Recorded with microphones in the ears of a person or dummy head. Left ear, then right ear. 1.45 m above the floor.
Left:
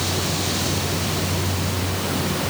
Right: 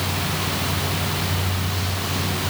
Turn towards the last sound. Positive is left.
No sound to turn to.